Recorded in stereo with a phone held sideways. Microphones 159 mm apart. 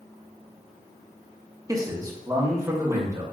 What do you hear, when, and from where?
1.7 s a man speaking: 25° right (ahead or behind), 0.7 m; by 3.2 s 20° right (ahead or behind), 1.5 m